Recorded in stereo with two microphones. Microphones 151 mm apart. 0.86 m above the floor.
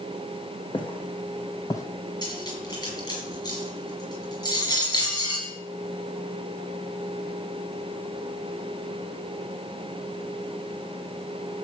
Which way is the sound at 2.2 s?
30° left (ahead or behind).